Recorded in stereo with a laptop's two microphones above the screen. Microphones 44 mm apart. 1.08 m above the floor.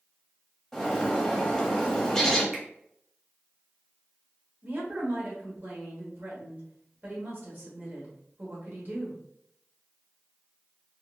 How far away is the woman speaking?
About 1.4 m.